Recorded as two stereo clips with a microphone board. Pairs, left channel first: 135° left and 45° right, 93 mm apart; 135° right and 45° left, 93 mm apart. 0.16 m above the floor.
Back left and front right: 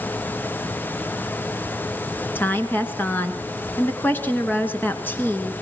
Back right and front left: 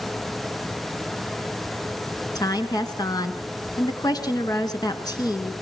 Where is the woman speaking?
160° right, 2 m.